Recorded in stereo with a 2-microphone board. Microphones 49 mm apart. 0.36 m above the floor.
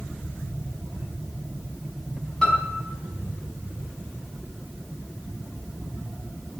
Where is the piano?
15° left (ahead or behind), 3.5 m.